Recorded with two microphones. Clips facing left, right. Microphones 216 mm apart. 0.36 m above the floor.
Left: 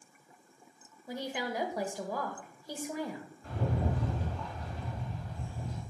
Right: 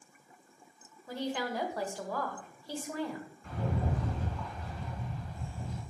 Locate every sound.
1.1 s a woman speaking: 15° left (ahead or behind), 1.4 m
3.4 s a rattle: 35° left (ahead or behind), 4.5 m